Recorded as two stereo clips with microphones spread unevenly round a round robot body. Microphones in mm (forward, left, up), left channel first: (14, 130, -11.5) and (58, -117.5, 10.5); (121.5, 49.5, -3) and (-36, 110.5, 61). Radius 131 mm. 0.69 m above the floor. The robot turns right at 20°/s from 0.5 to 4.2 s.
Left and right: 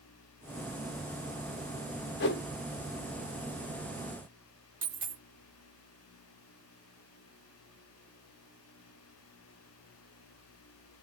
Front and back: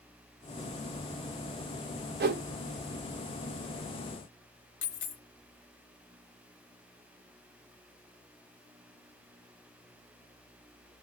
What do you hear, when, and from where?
2.2 s a whoosh: 135° left, 0.6 m; by 2.4 s 140° left, 0.6 m
4.8 s a dropped coin: 15° right, 0.8 m